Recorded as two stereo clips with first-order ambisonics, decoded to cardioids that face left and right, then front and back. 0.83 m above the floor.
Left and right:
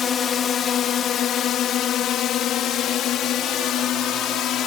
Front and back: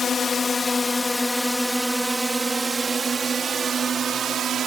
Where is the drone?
50° left; by 4.7 s 130° left.